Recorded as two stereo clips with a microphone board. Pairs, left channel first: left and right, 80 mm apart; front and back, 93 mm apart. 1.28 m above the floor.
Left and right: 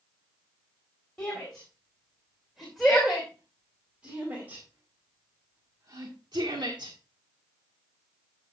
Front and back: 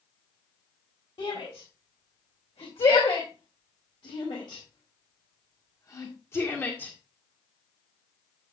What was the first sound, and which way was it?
A shout, 10° left.